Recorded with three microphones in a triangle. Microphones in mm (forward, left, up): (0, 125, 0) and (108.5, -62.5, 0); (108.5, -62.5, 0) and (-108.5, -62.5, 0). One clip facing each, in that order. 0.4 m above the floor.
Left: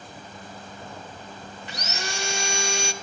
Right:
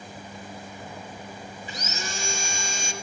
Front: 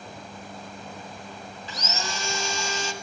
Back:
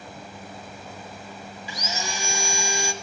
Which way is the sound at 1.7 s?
105° left.